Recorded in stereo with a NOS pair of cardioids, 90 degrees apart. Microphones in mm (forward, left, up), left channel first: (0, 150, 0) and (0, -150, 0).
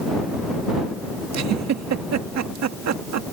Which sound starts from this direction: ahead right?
A giggle, at 1.3 s.